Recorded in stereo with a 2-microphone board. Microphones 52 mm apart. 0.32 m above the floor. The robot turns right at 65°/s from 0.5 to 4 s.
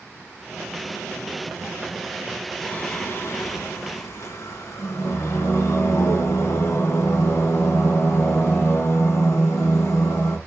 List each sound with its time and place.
2.6 s singing: 10° left, 2.5 m; by 10.4 s 105° left, 2.5 m